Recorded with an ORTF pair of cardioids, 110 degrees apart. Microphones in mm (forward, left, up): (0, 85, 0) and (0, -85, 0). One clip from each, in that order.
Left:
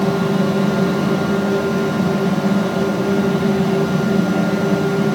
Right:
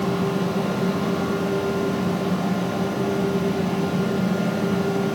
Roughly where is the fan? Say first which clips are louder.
Left 6 dB; ahead left.